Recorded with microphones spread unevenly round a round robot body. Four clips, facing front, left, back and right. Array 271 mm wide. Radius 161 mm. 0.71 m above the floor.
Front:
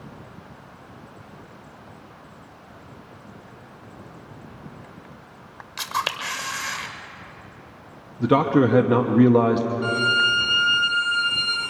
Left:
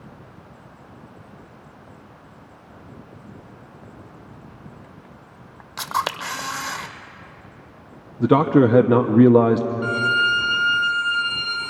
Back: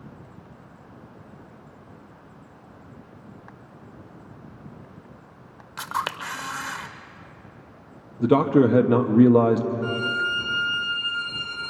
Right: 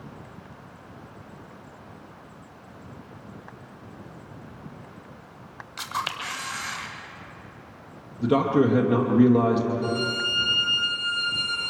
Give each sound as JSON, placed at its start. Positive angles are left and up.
{"t": 5.8, "sound": "a camera shutter", "azimuth_deg": 95, "distance_m": 0.5}
{"t": 8.2, "sound": "a man speaking", "azimuth_deg": 85, "distance_m": 0.9}
{"t": 9.8, "sound": "a violin", "azimuth_deg": 45, "distance_m": 6.0}